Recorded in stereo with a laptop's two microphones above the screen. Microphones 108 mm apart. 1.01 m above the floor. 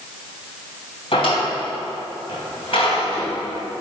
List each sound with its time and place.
1.1 s a drawer: 70° left (ahead or behind), 2.5 m